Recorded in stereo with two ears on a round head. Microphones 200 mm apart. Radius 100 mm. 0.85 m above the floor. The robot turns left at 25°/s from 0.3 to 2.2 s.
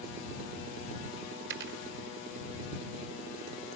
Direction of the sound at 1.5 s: 55° right (ahead or behind).